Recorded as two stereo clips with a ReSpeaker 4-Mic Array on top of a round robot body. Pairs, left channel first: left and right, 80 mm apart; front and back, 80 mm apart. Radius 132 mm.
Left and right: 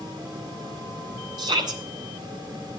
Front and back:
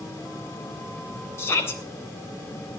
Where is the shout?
60° right, 3.5 m.